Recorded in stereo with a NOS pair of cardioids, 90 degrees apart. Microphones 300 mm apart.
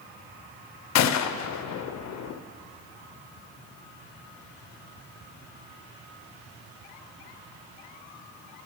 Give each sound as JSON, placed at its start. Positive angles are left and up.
{"t": 0.9, "sound": "a gunshot", "azimuth_deg": 65, "distance_m": 0.5}